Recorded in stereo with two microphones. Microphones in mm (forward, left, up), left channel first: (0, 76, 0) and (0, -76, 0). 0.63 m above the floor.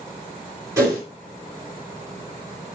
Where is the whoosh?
20° right (ahead or behind), 3.5 m.